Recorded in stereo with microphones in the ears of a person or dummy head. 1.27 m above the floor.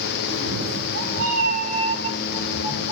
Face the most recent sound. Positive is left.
turn(degrees=-30)  # may be behind; listen again after turning